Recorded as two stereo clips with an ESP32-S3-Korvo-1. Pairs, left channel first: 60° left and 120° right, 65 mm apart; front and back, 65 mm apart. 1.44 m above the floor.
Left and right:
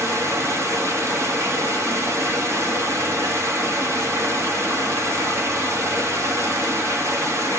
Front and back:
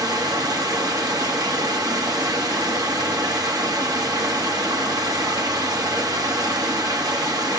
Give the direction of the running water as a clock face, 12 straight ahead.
6 o'clock.